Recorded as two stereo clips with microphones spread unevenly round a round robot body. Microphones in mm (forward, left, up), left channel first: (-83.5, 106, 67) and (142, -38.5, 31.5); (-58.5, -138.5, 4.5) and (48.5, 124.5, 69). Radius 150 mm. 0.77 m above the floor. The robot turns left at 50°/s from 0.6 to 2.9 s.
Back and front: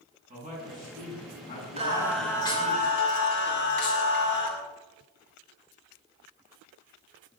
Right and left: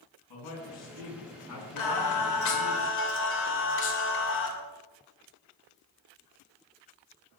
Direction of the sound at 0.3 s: 100° right.